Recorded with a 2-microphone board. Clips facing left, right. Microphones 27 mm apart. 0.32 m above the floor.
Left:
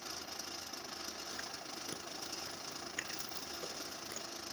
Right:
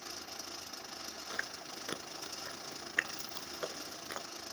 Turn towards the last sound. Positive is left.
turn(degrees=-50)  # may be behind; listen again after turning